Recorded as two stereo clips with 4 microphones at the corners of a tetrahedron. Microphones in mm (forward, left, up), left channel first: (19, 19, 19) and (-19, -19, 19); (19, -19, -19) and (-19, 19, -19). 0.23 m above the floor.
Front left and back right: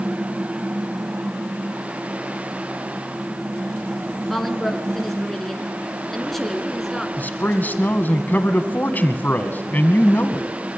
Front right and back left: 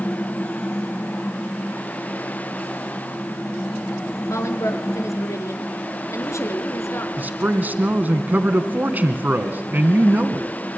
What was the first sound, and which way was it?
A woman speaking, 40° right.